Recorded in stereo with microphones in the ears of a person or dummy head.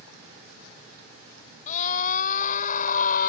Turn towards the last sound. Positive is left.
turn(degrees=50)  # may be behind; listen again after turning